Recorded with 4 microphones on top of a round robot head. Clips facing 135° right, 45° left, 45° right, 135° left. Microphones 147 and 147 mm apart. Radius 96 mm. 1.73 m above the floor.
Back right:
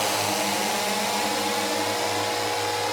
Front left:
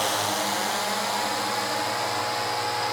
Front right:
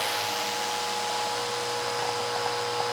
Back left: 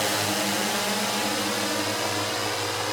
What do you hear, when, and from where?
0.0 s a drone: 145° left; by 2.9 s 160° left